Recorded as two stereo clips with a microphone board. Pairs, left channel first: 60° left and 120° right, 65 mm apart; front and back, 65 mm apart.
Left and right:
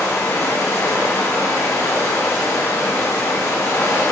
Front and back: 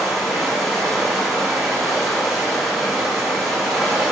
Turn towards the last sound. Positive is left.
turn(degrees=95)